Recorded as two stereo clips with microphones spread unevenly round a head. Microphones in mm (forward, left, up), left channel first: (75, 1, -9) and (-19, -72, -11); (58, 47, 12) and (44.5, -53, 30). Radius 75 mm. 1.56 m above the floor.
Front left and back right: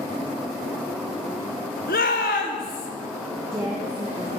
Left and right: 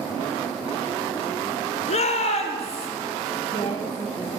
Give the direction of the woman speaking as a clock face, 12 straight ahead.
7 o'clock.